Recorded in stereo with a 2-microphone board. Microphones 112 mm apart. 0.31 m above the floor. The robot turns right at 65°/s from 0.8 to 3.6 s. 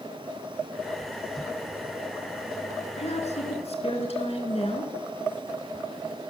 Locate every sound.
3.0 s a woman speaking: 70° left, 3.5 m; by 4.9 s 110° left, 3.5 m